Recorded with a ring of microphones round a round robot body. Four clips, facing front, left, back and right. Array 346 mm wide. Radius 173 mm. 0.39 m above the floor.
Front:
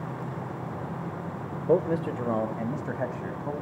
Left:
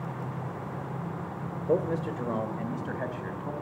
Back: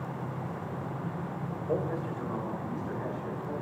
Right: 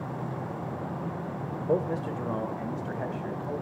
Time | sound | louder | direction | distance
1.7 | a man speaking | left 1 dB, front 8 dB | 5° left | 1.7 m